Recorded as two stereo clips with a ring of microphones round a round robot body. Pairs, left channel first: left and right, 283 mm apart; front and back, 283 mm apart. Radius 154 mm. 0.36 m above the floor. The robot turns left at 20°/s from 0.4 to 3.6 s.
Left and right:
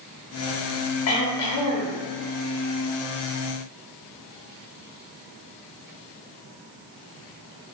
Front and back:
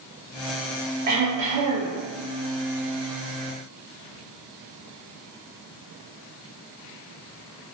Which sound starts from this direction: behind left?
Throat clearing, at 1.1 s.